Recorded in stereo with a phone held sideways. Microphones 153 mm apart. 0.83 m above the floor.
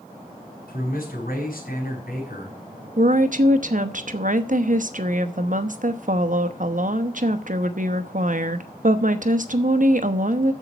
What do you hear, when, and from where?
0.7 s a man speaking: 65° left (ahead or behind), 5.5 m
3.0 s a woman speaking: 60° right (ahead or behind), 1.0 m